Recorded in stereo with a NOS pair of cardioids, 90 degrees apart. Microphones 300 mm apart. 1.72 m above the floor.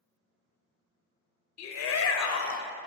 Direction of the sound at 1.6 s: 60° left.